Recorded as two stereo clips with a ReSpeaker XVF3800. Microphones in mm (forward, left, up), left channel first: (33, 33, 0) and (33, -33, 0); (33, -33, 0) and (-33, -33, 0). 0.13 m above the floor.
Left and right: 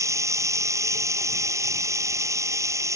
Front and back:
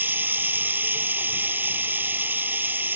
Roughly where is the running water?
Behind right.